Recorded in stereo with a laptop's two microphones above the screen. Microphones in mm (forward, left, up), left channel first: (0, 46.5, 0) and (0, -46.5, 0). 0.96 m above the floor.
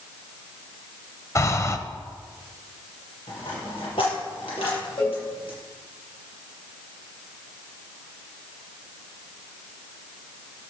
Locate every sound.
1.4 s breathing: 35° left (ahead or behind), 0.9 m
3.3 s a dropped coin: 75° left (ahead or behind), 5 m
5.0 s a cowbell: 60° left (ahead or behind), 3.5 m